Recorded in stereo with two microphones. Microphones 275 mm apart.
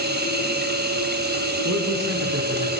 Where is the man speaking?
65° right (ahead or behind), 6.5 m.